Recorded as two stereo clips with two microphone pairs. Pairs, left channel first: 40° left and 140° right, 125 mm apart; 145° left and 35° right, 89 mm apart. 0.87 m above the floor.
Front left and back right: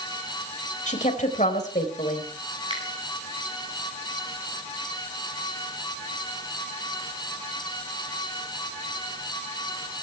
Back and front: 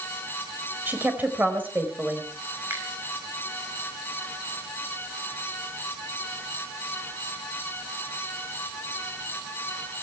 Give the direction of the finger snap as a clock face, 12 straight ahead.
3 o'clock.